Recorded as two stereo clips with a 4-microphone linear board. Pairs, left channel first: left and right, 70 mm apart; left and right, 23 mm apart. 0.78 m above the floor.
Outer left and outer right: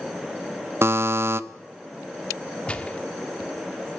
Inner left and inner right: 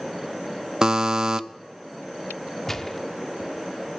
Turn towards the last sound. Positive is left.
turn(degrees=15)  # may be behind; listen again after turning